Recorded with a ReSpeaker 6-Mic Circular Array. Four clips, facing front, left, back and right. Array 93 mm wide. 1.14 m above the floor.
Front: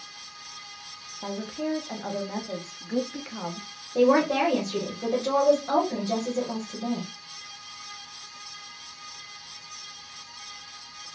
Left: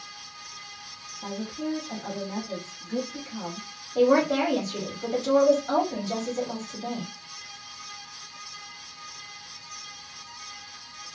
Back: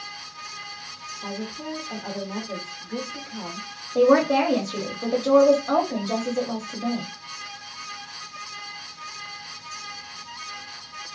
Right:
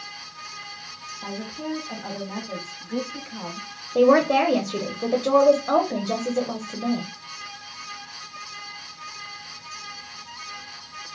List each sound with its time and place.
1.2 s a woman speaking: 25° right, 0.9 m
4.0 s a woman speaking: 95° right, 0.8 m